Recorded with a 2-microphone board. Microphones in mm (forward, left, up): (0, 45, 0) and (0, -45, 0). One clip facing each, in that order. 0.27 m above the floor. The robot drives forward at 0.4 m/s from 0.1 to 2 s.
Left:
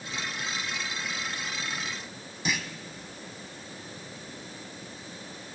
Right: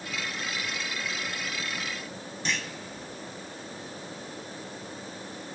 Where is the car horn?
I don't hear a car horn.